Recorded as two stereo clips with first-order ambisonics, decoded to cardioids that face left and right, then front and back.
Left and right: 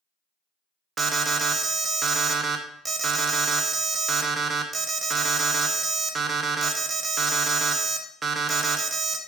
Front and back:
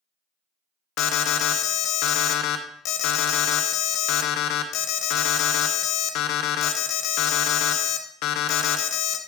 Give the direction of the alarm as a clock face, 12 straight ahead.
1 o'clock.